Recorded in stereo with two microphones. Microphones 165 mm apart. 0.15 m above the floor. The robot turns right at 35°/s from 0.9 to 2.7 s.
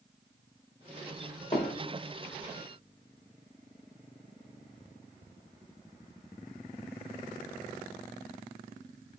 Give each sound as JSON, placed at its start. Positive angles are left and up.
{"t": 1.5, "sound": "hammering", "side_deg": 45, "distance_m": 5.0}